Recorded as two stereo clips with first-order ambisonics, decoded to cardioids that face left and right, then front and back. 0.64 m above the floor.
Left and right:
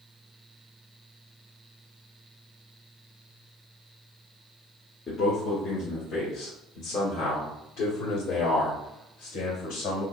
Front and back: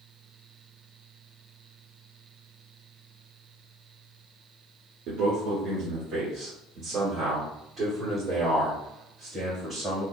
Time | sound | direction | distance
5.1 | a man speaking | 150° left | 1.8 m